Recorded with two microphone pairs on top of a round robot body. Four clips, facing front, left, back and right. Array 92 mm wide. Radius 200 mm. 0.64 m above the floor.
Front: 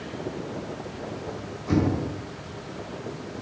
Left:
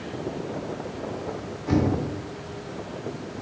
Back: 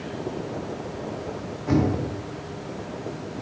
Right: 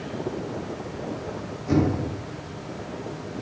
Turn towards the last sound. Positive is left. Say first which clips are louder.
# right 1 dB, back 1 dB
turn(degrees=160)